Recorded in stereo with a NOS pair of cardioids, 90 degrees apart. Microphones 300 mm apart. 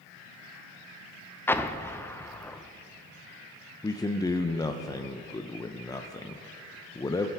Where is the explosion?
10° left, 0.5 m.